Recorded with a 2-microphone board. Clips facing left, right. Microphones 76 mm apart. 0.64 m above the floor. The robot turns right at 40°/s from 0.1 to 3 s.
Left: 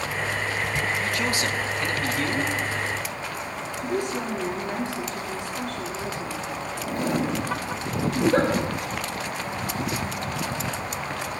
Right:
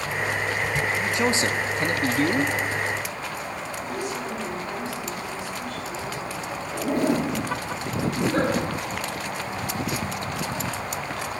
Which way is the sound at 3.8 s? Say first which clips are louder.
Left 5 dB; 70° left (ahead or behind).